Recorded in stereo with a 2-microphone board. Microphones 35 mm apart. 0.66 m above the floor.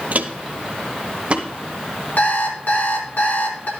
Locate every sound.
0.1 s footsteps: 50° right (ahead or behind), 0.9 m; by 1.5 s 30° right (ahead or behind), 2.0 m
2.2 s an alarm clock: 70° left (ahead or behind), 3.5 m